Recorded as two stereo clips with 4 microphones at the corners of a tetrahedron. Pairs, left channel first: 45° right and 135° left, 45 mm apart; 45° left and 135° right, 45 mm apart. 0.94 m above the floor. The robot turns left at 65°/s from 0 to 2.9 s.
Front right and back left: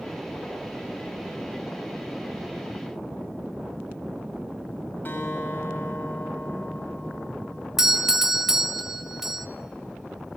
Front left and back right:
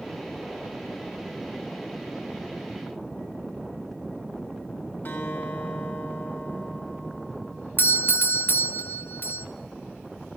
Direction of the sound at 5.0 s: Straight ahead.